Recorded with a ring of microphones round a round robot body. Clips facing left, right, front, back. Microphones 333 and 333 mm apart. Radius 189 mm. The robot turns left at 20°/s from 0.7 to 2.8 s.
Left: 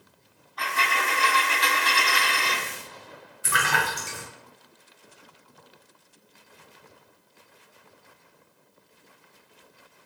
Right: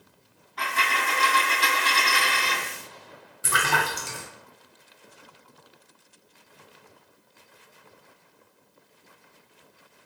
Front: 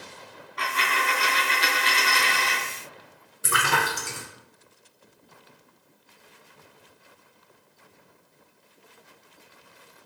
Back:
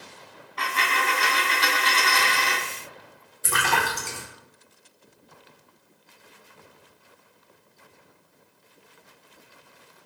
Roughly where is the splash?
Right.